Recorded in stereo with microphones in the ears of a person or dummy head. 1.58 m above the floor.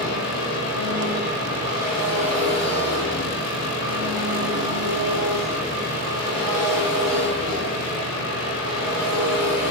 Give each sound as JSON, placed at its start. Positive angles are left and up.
{"t": 0.0, "sound": "an engine running", "side_deg": -20, "distance_m": 3.0}